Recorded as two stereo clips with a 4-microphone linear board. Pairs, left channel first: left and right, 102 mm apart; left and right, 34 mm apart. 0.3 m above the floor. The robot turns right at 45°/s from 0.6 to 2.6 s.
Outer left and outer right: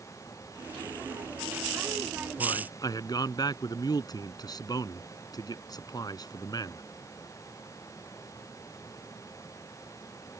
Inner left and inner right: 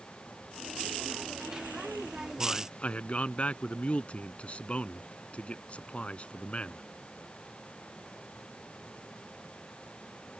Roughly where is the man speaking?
Left.